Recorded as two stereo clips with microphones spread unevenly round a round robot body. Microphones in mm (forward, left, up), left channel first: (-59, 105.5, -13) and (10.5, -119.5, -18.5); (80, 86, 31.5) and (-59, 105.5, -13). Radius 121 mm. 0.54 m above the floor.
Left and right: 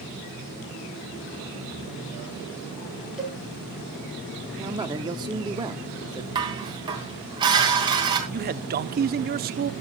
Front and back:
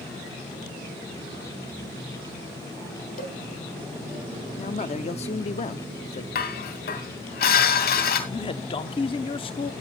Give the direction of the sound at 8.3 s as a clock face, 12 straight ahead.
2 o'clock.